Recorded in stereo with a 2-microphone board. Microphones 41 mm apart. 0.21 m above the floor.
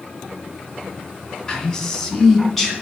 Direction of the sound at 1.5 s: 20° left (ahead or behind).